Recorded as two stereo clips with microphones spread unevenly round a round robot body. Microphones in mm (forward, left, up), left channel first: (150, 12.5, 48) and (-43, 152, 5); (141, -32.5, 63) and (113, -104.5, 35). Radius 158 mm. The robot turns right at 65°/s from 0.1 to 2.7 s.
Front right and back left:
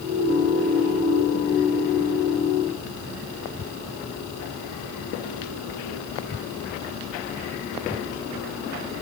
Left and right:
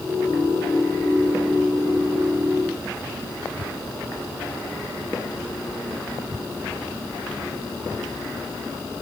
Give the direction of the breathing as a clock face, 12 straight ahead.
No breathing in this recording.